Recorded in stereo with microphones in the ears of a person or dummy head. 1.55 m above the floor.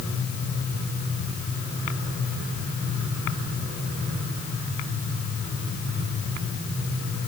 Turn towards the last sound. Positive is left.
No sound to turn to.